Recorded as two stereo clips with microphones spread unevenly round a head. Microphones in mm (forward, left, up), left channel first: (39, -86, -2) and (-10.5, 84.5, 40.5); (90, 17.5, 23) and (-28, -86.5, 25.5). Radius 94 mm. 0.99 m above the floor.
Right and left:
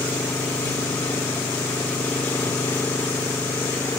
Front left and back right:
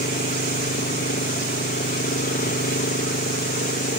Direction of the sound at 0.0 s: 5° left.